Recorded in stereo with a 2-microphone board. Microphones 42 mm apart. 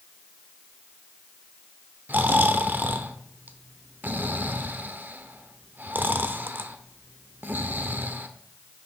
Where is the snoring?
55° right (ahead or behind), 0.7 m.